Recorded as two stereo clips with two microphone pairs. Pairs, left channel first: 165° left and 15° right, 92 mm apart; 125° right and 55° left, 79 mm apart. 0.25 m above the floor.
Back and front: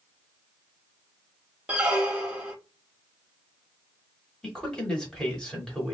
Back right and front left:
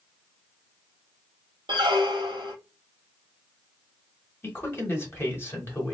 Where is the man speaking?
120° right, 1.2 m.